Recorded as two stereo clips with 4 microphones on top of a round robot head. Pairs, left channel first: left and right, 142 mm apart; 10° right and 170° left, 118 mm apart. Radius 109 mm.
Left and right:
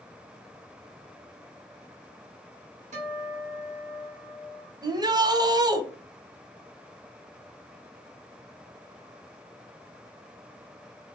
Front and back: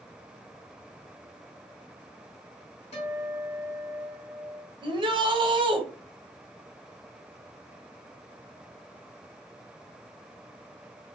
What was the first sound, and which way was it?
A guitar, 50° right.